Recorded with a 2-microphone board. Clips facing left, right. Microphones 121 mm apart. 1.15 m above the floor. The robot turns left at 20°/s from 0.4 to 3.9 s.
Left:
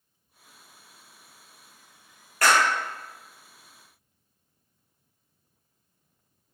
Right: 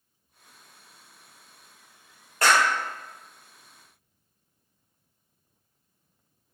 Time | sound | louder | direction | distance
2.4 | a clap | even | 25° right (ahead or behind) | 0.8 m